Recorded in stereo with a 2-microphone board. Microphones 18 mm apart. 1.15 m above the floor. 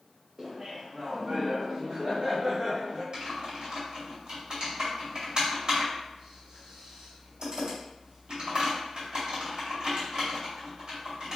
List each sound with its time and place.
0.4 s laughter: 30° right (ahead or behind), 0.7 m; by 3.0 s 85° right, 1.6 m
3.1 s typing on a keyboard: 55° right (ahead or behind), 2.0 m